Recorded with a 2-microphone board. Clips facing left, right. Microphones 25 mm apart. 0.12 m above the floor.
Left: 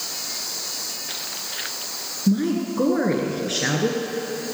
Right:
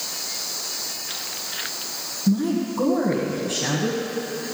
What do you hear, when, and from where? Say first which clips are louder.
2.3 s a woman speaking: even; 35° left (ahead or behind), 1.5 m